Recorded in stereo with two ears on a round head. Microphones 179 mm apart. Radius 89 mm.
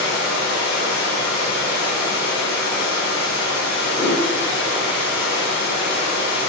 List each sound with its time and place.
0.0 s running water: 55° left (ahead or behind), 4.5 m
3.9 s a whoosh: 25° left (ahead or behind), 4 m